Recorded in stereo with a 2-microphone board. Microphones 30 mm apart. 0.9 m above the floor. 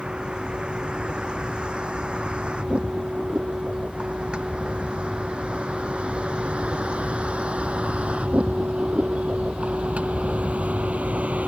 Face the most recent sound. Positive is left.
turn(degrees=-50)  # may be behind; listen again after turning